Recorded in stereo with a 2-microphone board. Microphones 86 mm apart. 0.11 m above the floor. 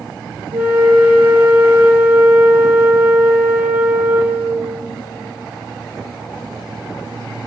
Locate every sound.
0.5 s a flute: 15° right (ahead or behind), 0.5 m